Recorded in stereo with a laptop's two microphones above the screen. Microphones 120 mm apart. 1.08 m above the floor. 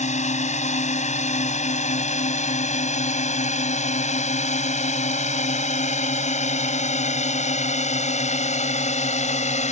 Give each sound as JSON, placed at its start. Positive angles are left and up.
{"t": 0.0, "sound": "a drone", "side_deg": 75}